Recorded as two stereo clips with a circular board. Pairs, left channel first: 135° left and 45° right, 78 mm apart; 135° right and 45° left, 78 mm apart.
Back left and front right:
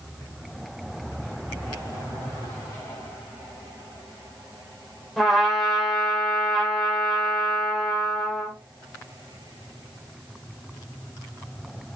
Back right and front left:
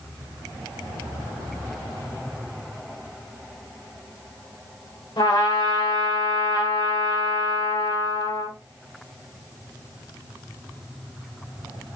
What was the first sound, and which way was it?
A trumpet, 135° right.